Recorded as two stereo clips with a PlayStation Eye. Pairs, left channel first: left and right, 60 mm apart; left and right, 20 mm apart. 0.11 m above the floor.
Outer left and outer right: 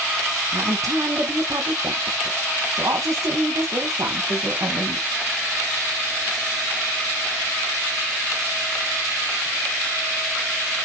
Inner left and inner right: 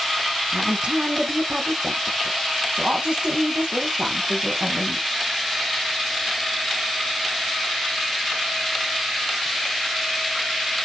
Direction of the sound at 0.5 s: 70° right (ahead or behind).